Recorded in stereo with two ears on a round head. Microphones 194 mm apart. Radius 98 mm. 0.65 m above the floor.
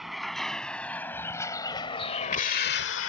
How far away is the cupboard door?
No cupboard door in this recording.